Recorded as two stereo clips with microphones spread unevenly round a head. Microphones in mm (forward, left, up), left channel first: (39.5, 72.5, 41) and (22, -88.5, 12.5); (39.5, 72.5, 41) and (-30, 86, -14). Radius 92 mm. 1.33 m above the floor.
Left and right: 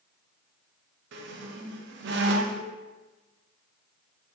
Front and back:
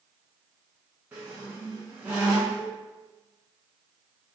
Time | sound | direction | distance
1.1 | a squeak | 85° right | 0.5 m